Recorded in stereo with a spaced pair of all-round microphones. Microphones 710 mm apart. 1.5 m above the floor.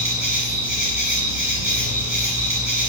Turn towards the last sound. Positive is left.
turn(degrees=-25)  # may be behind; listen again after turning